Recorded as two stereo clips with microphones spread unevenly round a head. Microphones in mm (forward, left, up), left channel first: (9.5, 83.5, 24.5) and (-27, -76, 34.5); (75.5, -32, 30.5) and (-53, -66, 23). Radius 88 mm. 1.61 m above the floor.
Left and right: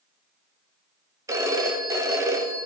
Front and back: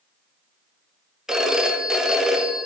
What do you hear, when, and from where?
1.3 s a phone ringing: 75° right, 0.8 m